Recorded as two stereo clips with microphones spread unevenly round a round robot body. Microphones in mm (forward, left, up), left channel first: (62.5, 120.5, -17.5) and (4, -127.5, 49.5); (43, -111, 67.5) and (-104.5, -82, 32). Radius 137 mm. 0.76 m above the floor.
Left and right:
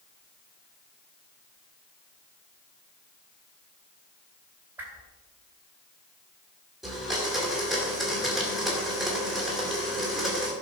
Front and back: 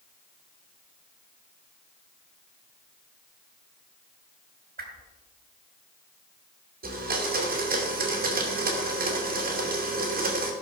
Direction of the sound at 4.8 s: 170° left.